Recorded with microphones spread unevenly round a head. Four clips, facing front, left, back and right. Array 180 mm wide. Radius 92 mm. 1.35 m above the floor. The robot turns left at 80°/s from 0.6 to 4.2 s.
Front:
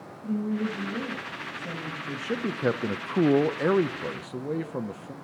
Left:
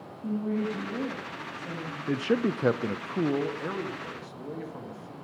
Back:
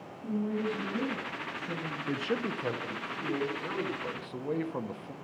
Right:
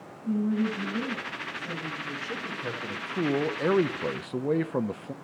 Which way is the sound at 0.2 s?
85° left.